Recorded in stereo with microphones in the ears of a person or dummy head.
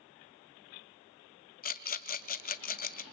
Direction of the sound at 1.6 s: 40° left (ahead or behind).